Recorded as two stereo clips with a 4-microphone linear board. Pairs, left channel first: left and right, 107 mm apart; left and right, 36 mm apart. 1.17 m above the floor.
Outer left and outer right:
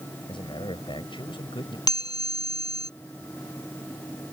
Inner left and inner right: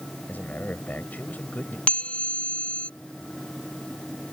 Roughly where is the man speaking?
Left.